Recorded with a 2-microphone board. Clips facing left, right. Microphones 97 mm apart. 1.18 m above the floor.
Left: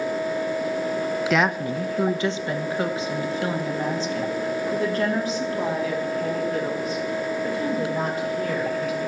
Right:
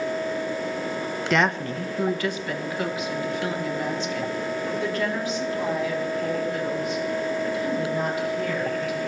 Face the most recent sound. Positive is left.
turn(degrees=45)  # may be behind; listen again after turning